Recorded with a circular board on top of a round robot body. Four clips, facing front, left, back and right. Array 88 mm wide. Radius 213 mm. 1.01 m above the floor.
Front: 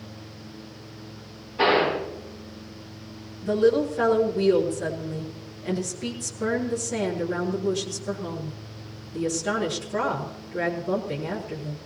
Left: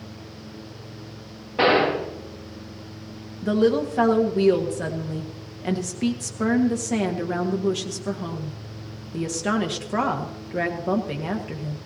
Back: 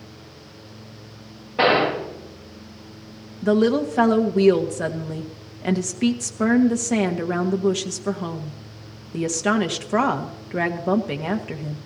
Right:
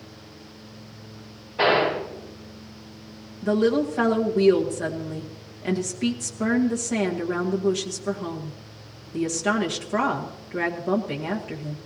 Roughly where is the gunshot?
Behind left.